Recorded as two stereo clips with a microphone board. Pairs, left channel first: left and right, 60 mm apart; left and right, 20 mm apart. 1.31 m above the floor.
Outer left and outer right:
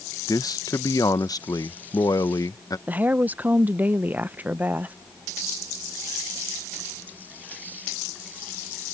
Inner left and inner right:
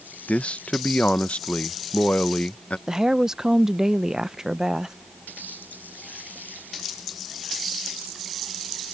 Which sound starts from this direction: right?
A woman speaking, at 2.9 s.